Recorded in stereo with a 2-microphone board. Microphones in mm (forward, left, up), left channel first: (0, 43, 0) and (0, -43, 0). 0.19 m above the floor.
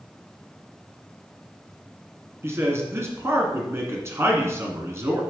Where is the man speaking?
30° right (ahead or behind), 1.6 m.